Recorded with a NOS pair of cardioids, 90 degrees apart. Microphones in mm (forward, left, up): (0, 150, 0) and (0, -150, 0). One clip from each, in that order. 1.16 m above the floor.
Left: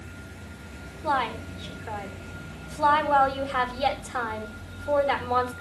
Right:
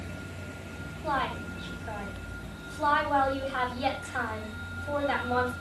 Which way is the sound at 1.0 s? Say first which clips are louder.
Left 4 dB; 30° left.